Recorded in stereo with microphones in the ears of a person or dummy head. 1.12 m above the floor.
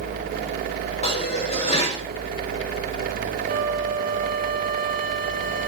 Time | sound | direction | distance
1.0 | dishes clattering | 30° left (ahead or behind) | 3.5 m
3.5 | a flute | 40° right (ahead or behind) | 1.0 m